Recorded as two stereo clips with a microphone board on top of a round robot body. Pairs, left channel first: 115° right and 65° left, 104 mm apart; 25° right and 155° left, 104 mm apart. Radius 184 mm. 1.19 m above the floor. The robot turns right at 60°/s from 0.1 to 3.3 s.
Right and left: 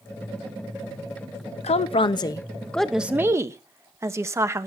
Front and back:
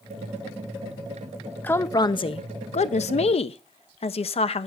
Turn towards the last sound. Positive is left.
turn(degrees=5)